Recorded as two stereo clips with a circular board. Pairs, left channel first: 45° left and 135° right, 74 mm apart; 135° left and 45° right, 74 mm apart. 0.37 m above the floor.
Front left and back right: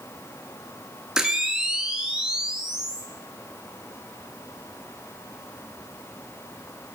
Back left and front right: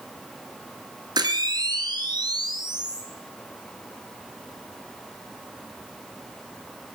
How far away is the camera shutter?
About 2 m.